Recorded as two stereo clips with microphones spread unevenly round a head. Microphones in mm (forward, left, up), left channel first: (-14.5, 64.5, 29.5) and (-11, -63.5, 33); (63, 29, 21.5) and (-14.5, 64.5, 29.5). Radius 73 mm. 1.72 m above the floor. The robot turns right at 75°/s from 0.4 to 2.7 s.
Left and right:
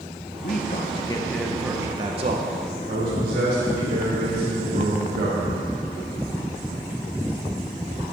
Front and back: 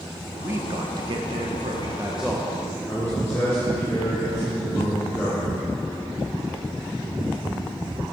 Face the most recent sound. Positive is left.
turn(degrees=-100)